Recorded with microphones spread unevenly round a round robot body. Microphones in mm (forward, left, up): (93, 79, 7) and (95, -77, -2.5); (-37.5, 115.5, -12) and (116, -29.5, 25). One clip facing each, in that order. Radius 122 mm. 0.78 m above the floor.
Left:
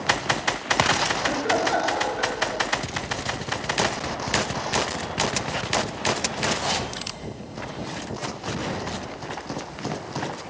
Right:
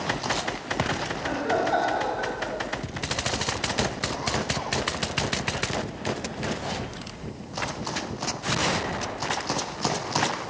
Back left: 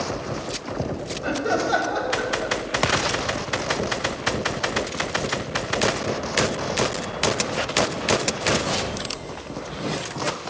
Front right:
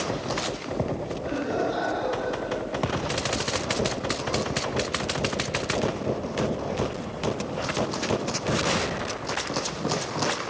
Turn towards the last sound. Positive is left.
turn(degrees=155)